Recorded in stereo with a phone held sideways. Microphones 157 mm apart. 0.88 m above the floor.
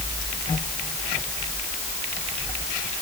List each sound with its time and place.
Only background noise.